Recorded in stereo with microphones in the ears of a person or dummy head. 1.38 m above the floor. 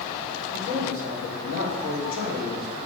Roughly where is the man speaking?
Left.